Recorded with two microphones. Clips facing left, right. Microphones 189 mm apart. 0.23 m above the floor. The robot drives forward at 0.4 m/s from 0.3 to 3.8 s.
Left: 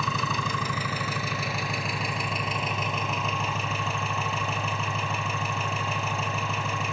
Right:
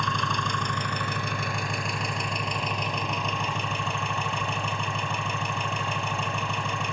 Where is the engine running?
5° left (ahead or behind), 1.3 m.